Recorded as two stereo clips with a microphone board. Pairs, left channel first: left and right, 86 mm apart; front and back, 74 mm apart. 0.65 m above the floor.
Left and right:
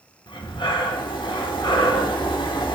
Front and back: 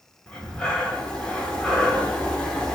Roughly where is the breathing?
Left.